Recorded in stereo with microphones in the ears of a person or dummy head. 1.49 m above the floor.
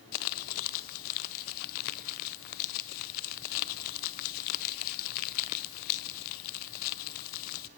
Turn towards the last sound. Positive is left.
turn(degrees=45)  # may be behind; listen again after turning